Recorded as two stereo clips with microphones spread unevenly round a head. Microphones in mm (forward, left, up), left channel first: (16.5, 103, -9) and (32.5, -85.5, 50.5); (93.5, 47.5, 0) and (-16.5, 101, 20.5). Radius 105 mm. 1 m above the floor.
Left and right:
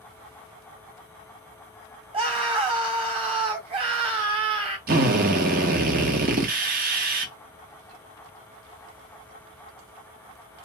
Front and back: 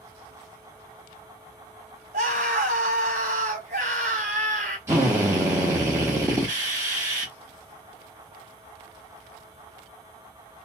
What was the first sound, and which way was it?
A scream, 155° right.